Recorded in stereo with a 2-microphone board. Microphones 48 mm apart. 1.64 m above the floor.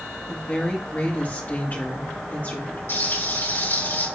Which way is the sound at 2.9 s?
55° left (ahead or behind).